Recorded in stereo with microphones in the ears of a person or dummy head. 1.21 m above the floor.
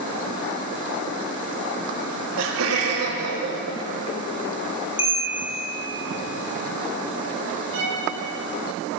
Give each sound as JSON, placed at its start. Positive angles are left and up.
{"t": 2.0, "sound": "laughter", "side_deg": -60, "distance_m": 2.5}
{"t": 5.0, "sound": "a bell", "side_deg": 35, "distance_m": 3.0}
{"t": 7.7, "sound": "a violin", "side_deg": -70, "distance_m": 3.0}